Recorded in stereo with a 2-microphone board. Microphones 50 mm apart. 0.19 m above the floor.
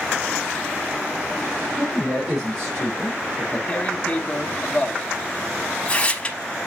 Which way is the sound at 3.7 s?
25° left (ahead or behind).